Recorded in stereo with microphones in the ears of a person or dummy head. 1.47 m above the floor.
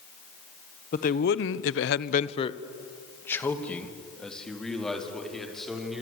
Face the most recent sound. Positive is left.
turn(degrees=0)  # may be behind; listen again after turning